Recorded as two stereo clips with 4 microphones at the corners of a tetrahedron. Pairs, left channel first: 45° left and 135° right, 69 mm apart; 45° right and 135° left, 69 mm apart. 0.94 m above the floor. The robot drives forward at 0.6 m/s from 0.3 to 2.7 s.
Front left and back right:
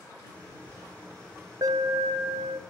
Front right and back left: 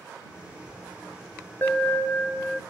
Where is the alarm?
105° right, 0.9 m; by 2.6 s 135° right, 1.2 m.